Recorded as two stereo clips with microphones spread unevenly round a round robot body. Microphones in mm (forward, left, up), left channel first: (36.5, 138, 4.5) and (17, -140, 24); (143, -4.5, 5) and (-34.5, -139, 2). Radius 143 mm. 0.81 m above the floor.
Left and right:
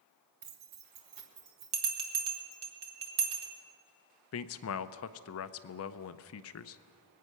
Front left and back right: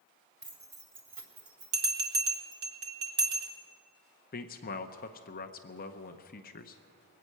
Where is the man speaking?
85° left, 0.5 m.